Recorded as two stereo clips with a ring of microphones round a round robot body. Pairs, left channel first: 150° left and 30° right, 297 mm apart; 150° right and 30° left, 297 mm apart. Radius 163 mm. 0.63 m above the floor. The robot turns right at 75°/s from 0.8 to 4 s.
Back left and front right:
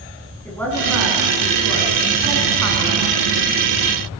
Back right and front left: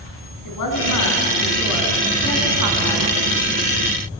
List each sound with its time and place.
0.5 s a woman speaking: 125° right, 7 m; by 3.3 s 60° left, 7 m